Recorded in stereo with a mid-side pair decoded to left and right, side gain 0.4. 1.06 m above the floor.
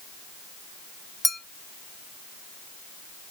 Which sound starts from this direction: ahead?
A clink, at 1.2 s.